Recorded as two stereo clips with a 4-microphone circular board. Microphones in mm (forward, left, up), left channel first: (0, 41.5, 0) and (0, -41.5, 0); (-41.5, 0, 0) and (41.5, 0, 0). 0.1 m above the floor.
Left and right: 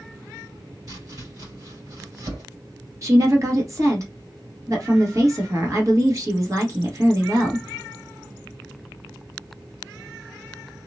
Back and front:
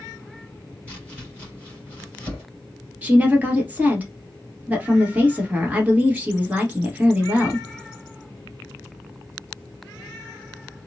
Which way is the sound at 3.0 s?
65° right.